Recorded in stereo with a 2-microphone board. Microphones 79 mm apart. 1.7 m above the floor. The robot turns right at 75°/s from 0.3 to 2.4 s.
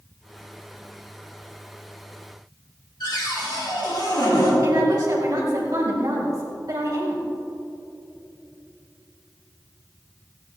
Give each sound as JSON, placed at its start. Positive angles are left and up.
{"t": 3.0, "sound": "a cupboard door", "side_deg": 70, "distance_m": 3.5}
{"t": 4.6, "sound": "a woman speaking", "side_deg": -55, "distance_m": 2.5}